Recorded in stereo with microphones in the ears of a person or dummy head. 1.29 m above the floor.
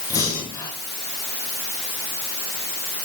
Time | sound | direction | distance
0.1 | breathing | 20° left (ahead or behind) | 3.5 m